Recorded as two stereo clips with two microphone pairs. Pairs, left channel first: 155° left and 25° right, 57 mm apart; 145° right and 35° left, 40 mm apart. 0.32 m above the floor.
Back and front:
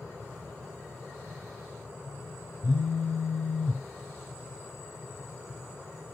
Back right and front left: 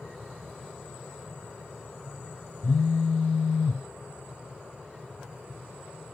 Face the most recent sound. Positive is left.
turn(degrees=-155)